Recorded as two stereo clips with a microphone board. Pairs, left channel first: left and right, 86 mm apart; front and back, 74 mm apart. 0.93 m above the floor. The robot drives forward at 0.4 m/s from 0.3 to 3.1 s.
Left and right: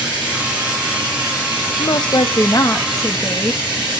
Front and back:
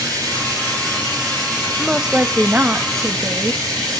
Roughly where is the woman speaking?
Left.